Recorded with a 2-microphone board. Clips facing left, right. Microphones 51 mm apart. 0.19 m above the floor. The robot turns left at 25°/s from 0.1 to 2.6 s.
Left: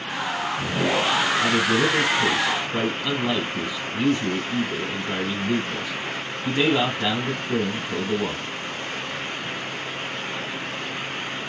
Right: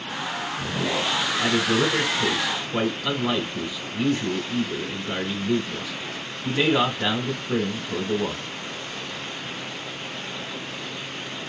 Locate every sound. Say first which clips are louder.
1.4 s a man speaking: right 2 dB; 15° right (ahead or behind), 1.4 m; by 8.5 s centre (ahead or behind), 1.4 m